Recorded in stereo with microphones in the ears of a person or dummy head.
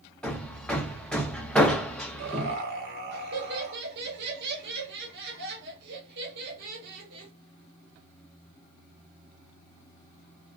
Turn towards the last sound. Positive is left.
turn(degrees=-55)  # may be behind; listen again after turning